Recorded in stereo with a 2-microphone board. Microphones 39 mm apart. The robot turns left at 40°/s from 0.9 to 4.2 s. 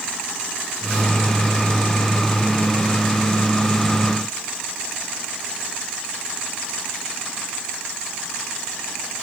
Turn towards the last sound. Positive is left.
No sound to turn to.